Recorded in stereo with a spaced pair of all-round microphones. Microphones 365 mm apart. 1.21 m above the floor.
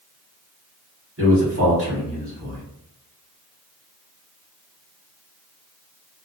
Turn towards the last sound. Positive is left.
turn(degrees=-40)  # may be behind; listen again after turning